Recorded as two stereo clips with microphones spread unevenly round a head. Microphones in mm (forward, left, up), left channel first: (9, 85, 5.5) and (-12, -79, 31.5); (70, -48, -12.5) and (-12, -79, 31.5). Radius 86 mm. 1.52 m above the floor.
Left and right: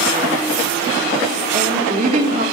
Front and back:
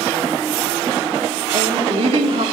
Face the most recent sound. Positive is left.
turn(degrees=-145)